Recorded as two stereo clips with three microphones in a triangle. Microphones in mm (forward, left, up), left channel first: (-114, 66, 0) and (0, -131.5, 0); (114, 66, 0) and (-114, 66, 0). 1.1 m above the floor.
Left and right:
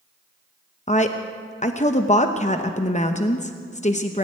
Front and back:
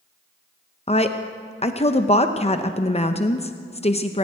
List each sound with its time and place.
0.9 s a woman speaking: 65° left, 0.7 m